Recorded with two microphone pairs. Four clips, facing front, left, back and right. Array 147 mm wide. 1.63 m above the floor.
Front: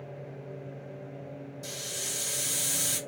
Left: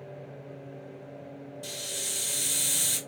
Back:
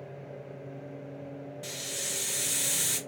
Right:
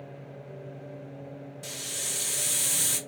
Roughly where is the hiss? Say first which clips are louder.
Left 1 dB, even; right.